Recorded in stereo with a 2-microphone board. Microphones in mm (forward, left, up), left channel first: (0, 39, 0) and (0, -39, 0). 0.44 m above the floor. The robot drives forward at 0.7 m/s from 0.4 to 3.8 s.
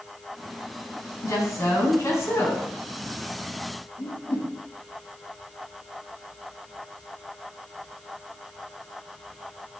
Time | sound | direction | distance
1.2 | a woman speaking | 45° left (ahead or behind) | 3 m
4.0 | a whoosh | 60° left (ahead or behind) | 4.5 m